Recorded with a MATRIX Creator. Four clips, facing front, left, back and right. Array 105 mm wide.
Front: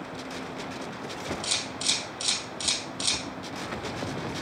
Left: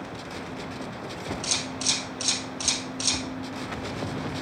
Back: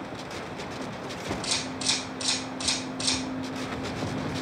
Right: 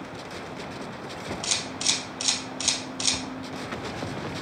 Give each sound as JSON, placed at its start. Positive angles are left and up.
{"t": 1.4, "sound": "a camera shutter", "azimuth_deg": -65, "distance_m": 2.5}